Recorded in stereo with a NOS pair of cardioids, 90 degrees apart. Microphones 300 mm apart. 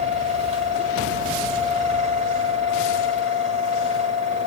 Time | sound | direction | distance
0.0 | a fan | 20° right | 3 m